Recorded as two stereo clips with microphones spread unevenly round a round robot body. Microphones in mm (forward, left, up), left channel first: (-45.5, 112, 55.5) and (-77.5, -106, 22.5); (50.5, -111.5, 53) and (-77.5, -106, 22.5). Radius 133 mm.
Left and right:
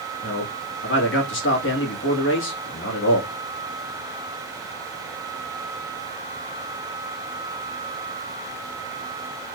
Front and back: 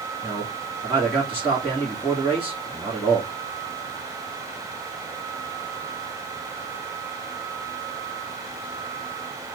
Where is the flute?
I don't hear a flute.